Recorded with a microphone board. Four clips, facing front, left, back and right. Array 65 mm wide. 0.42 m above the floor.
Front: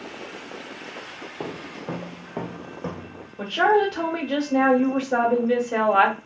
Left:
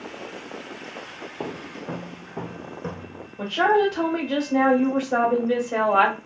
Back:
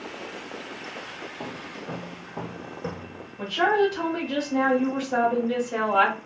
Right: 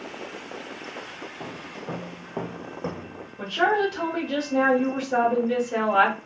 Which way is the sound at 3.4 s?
5° left.